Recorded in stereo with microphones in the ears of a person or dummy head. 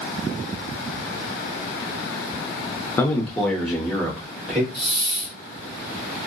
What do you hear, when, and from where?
3.0 s a man speaking: 10° left (ahead or behind), 0.5 m; by 4.6 s 10° right (ahead or behind), 1.6 m
4.7 s a hiss: 25° right (ahead or behind), 1.7 m